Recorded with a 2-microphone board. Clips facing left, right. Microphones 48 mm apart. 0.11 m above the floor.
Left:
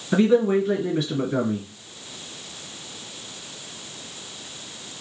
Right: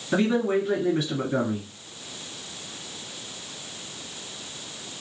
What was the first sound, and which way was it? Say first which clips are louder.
A man speaking: left 4 dB; centre (ahead or behind).